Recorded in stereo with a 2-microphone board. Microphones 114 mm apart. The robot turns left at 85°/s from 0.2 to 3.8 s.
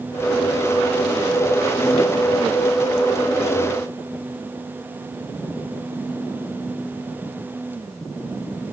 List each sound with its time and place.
Only background noise.